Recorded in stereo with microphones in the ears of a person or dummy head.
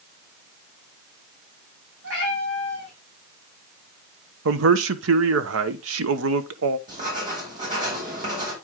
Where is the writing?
40° right (ahead or behind), 4.5 m.